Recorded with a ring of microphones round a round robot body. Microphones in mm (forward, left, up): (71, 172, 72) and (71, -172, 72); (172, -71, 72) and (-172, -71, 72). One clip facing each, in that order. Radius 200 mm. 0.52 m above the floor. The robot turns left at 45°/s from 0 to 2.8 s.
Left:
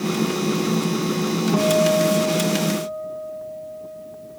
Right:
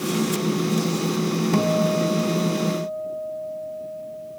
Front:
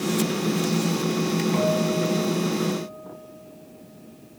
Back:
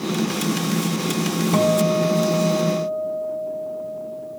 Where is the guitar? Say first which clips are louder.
Left 4 dB, back 4 dB; 155° right, 2.5 m; by 4.4 s 150° left, 2.5 m.